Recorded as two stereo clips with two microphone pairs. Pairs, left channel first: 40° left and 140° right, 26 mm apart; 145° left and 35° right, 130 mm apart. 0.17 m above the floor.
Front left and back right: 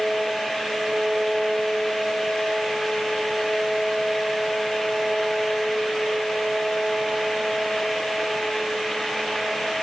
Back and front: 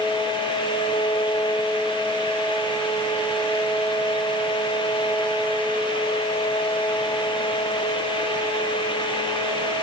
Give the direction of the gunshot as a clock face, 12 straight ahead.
I don't hear a gunshot.